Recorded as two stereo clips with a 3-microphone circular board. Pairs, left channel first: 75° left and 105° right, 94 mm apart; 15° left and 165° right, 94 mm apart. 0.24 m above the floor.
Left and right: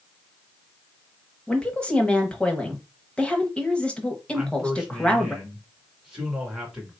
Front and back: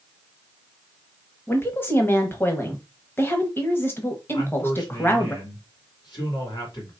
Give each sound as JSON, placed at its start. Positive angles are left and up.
{"t": 1.5, "sound": "a woman speaking", "azimuth_deg": 10, "distance_m": 1.0}
{"t": 4.3, "sound": "a man speaking", "azimuth_deg": -20, "distance_m": 2.0}